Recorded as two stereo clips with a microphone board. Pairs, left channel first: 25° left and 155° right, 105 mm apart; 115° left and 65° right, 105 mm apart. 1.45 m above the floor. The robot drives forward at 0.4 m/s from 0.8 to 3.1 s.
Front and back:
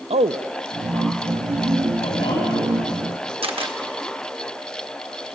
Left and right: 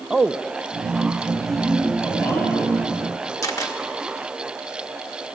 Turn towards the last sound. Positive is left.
turn(degrees=170)